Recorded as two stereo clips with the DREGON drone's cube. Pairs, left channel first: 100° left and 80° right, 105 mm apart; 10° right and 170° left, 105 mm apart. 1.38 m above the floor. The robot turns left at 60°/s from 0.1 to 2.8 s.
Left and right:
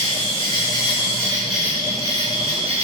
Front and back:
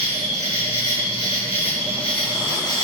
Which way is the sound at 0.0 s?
95° left.